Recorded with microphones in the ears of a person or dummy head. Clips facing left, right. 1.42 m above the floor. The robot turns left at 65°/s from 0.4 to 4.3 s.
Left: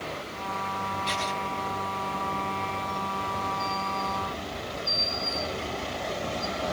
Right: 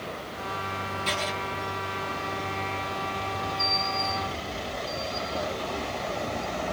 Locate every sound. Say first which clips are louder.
1.1 s writing: right 4 dB; 60° right (ahead or behind), 2.5 m; by 1.3 s 45° right (ahead or behind), 2.5 m